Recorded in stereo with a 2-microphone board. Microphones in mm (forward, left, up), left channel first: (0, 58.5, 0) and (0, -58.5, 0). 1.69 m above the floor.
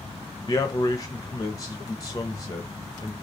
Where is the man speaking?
30° left (ahead or behind), 0.5 m.